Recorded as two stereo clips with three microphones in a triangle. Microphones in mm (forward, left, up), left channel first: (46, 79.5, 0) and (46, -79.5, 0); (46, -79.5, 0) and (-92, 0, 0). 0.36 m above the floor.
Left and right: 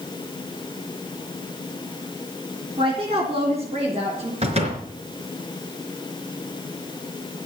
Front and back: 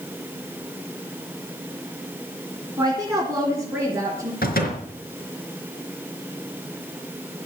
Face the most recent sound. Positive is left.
turn(degrees=-40)